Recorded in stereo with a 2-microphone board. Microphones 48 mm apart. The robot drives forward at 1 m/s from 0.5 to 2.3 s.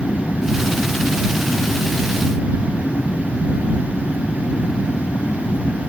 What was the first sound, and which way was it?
An aircraft, 60° left (ahead or behind).